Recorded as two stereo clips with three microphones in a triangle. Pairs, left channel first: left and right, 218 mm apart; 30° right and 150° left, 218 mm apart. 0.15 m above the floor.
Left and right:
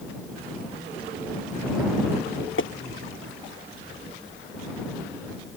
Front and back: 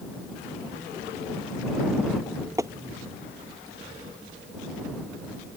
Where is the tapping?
75° left.